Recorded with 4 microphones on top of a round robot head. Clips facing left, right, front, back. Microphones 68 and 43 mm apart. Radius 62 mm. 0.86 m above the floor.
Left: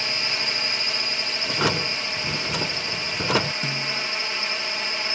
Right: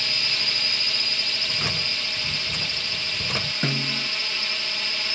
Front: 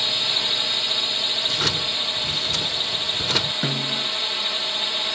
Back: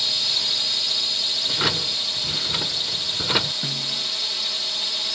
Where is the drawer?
100° left.